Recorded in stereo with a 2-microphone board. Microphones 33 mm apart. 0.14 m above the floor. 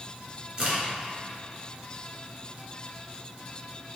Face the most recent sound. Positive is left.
turn(degrees=-35)  # may be behind; listen again after turning